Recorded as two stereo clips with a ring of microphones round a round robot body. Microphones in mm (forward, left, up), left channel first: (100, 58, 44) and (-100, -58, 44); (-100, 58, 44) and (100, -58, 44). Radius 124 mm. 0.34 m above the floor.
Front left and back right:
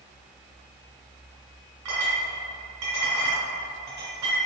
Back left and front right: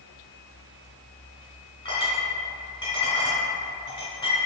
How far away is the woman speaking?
No woman speaking in this recording.